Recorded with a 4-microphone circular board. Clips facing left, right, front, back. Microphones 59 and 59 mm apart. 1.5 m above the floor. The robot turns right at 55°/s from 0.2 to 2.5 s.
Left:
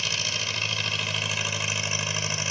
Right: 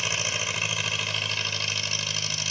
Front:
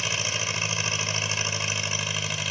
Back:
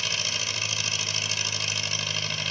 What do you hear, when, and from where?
0.0 s an engine running: 45° right, 1.3 m; by 2.5 s 80° left, 1.3 m